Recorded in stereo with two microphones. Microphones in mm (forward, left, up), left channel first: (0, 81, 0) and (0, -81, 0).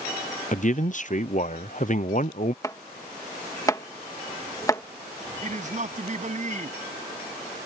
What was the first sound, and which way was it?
A man speaking, 50° left (ahead or behind).